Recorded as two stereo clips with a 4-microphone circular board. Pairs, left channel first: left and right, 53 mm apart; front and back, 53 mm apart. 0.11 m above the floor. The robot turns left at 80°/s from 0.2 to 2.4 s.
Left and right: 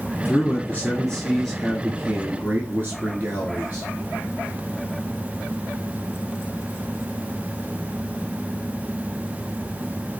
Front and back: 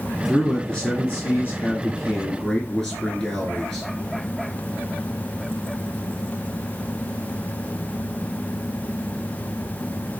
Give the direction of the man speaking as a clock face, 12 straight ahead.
9 o'clock.